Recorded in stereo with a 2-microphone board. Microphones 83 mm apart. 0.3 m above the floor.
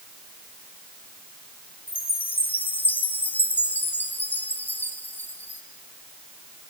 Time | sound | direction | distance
1.9 | a chime | 20° left (ahead or behind) | 1.8 m